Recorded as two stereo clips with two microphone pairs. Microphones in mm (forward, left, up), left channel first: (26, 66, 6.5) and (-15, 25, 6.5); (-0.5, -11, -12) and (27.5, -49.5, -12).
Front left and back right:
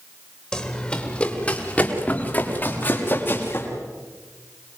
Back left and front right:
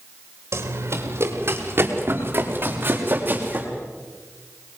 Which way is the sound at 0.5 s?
30° right.